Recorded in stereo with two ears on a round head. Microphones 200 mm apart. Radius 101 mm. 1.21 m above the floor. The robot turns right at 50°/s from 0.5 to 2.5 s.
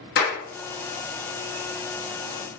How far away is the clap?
About 1.7 m.